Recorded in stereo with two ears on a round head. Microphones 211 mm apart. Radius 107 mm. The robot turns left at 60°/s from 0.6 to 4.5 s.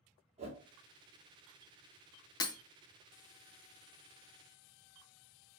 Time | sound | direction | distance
0.4 | a whoosh | 25° right (ahead or behind) | 1.2 m
2.4 | breaking glass | 15° left (ahead or behind) | 0.5 m